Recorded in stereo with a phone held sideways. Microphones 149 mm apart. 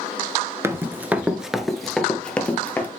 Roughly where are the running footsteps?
Centre.